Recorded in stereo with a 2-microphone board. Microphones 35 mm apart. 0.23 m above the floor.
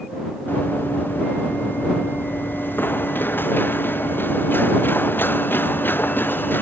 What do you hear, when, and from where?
0.5 s running footsteps: 80° left; by 6.6 s 90° left